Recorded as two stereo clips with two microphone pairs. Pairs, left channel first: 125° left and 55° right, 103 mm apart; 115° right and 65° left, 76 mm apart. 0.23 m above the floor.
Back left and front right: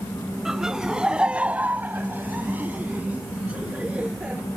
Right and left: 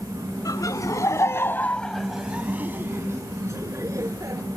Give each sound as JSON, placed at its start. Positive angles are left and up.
{"t": 0.5, "sound": "laughter", "azimuth_deg": -140}